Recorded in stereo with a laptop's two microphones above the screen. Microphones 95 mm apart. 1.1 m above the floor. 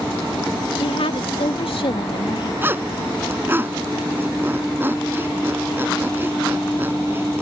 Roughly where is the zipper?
Right.